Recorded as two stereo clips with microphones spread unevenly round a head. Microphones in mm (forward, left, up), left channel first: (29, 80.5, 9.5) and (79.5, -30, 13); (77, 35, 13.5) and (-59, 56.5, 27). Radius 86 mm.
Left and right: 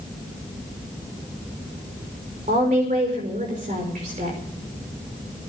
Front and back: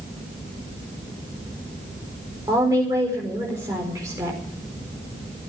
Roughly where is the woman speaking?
Behind right.